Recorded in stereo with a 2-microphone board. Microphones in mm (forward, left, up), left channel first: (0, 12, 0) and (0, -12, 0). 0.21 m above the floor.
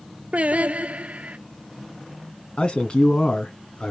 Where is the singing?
70° right (ahead or behind), 0.6 m.